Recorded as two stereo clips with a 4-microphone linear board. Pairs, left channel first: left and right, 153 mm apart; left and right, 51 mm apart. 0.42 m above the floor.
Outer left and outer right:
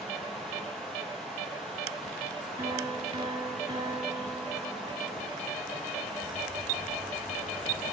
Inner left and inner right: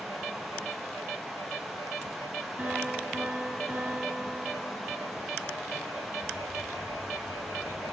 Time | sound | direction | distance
0.0 | running water | 5° left (ahead or behind) | 6 m
2.6 | a piano | 35° right (ahead or behind) | 3.5 m